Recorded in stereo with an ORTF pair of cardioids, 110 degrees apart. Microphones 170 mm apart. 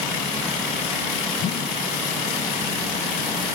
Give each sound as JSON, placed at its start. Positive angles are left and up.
{"t": 1.4, "sound": "a whoosh", "azimuth_deg": 55}